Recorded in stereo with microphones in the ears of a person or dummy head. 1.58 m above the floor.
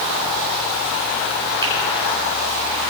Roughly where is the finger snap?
Right.